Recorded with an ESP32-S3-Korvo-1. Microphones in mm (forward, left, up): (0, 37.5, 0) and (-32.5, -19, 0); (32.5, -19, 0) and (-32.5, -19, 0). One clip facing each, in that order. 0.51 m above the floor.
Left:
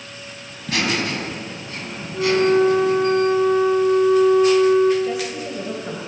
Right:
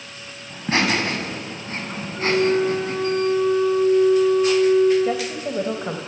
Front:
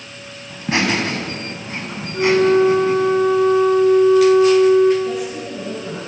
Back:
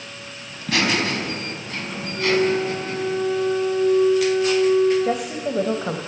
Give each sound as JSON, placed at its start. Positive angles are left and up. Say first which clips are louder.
{"t": 0.5, "sound": "laughter", "louder": "right 2 dB, front 3 dB", "azimuth_deg": -65, "distance_m": 4.5}
{"t": 2.1, "sound": "a flute", "louder": "left 3 dB, front 6 dB", "azimuth_deg": 20, "distance_m": 2.0}
{"t": 5.0, "sound": "a woman speaking", "louder": "right 1 dB, even", "azimuth_deg": -175, "distance_m": 2.0}